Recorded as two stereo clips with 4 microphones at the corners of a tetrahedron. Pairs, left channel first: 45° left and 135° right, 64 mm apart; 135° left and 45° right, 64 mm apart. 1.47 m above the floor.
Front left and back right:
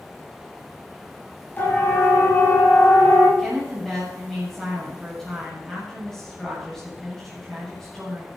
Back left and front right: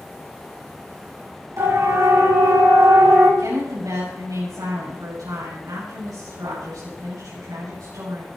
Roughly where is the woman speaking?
Ahead right.